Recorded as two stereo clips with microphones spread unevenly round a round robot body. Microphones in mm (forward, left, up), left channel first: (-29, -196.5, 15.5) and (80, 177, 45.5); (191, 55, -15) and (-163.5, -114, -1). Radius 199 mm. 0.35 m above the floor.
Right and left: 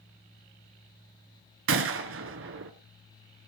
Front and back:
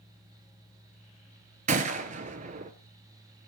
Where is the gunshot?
135° left, 0.9 m.